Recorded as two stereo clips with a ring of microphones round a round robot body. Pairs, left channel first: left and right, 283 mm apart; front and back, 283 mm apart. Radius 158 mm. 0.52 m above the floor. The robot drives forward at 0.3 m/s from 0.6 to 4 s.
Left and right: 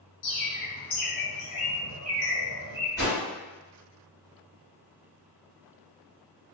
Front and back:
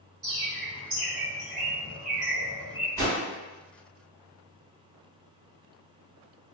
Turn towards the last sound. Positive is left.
turn(degrees=170)